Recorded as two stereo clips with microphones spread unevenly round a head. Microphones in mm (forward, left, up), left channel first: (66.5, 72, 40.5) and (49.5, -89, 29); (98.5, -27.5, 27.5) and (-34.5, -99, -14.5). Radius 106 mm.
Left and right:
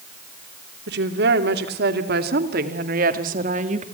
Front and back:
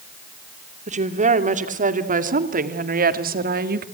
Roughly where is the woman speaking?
Behind right.